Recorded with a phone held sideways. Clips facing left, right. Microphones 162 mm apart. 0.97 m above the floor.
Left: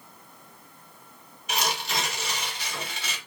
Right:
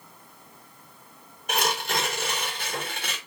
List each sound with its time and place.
1.5 s tearing paper: 50° right (ahead or behind), 1.3 m